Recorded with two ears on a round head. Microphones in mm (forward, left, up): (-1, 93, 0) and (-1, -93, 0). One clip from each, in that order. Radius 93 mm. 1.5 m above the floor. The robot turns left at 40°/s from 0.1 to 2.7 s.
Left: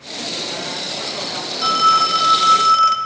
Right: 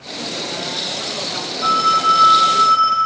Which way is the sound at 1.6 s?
135° left.